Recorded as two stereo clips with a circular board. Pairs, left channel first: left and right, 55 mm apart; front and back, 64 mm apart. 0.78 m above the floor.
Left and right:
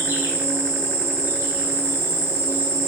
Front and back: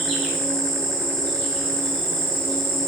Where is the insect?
85° right, 1.5 m.